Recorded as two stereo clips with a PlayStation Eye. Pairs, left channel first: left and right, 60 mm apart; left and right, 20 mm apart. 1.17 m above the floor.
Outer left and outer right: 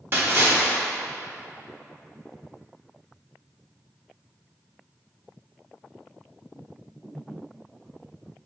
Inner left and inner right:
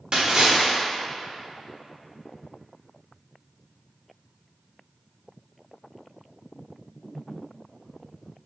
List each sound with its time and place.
0.1 s a splash: 40° right (ahead or behind), 0.9 m